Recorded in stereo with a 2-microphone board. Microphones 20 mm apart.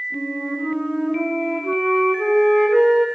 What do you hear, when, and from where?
0.1 s a flute: 5° left (ahead or behind), 9 m